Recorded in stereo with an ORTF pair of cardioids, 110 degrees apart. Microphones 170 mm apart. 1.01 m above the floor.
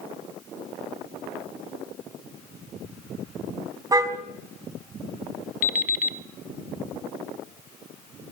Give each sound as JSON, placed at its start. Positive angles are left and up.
{"t": 3.9, "sound": "a car horn", "azimuth_deg": -20, "distance_m": 4.0}
{"t": 5.6, "sound": "an alarm clock", "azimuth_deg": 60, "distance_m": 1.5}